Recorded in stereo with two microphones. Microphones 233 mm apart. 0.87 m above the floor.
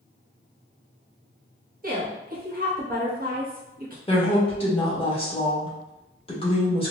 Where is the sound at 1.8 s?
40° right (ahead or behind), 0.9 m.